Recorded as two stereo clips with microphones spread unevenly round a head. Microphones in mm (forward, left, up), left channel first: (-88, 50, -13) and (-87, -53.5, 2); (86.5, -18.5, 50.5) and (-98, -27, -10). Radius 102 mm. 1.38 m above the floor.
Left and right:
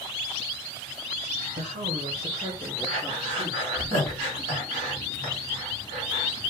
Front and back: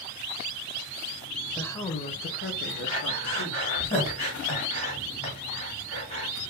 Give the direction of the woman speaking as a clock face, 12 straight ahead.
3 o'clock.